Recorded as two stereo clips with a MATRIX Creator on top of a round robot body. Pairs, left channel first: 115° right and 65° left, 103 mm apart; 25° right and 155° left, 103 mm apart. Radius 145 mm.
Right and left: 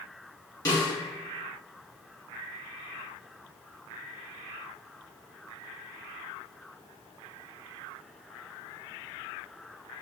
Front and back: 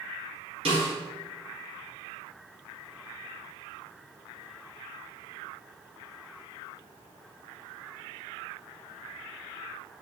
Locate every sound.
0.7 s a snare drum: 170° right, 1.8 m